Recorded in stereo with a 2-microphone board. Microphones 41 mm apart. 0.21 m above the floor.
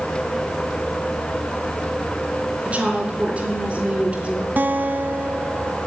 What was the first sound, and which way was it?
A woman speaking, 30° right (ahead or behind).